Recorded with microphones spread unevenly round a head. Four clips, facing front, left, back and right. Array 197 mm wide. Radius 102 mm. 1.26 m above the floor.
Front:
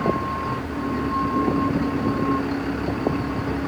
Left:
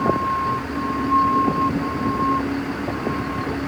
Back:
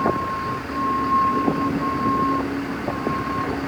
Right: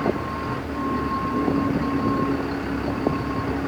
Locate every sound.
Only background noise.